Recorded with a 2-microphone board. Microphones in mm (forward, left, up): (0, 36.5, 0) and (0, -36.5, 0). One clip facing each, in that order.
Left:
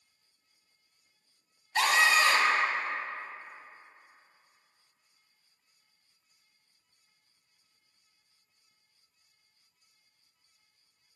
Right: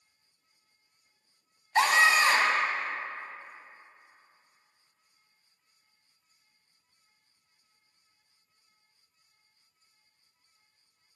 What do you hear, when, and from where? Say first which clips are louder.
1.8 s a scream: right 2 dB; 30° right (ahead or behind), 1.2 m